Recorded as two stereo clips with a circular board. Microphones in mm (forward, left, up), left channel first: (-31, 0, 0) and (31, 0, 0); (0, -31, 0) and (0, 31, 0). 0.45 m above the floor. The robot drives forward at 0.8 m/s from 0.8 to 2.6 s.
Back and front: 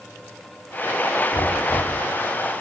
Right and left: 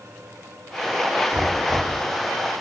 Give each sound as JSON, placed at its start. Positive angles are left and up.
{"t": 1.3, "sound": "knocking", "azimuth_deg": 160, "distance_m": 2.0}